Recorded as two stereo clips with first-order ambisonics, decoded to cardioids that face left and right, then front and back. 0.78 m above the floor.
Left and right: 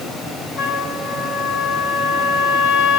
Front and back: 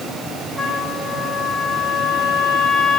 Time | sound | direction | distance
0.6 | a trumpet | 95° left | 2 m